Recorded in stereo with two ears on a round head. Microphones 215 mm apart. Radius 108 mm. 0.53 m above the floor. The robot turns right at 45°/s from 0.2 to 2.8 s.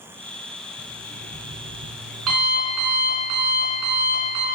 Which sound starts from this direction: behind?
An alarm clock, at 0.8 s.